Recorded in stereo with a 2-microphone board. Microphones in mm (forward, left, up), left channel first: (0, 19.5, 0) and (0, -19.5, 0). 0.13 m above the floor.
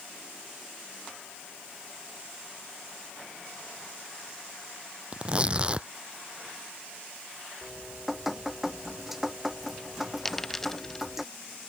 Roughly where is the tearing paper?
Right.